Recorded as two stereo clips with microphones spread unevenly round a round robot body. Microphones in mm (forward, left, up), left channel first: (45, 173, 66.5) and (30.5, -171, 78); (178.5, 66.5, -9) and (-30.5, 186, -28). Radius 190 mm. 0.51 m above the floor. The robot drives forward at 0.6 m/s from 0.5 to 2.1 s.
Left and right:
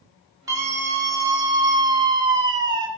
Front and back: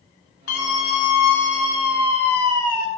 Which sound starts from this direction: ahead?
A scream, at 0.5 s.